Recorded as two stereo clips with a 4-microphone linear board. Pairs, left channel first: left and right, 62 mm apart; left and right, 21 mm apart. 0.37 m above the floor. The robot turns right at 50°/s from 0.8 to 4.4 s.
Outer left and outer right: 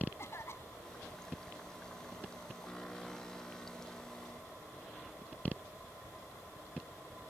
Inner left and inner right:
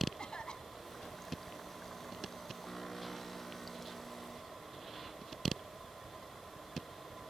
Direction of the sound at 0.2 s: 45° left (ahead or behind).